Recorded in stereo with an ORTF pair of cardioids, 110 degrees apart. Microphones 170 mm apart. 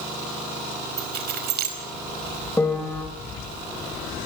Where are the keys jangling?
65° right, 5 m.